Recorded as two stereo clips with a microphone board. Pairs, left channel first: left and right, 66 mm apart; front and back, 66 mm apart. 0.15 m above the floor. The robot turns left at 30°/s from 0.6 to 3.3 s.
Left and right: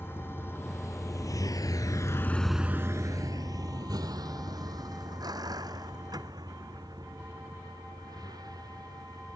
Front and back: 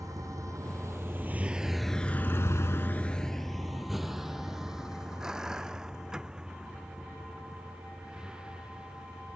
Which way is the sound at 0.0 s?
145° left.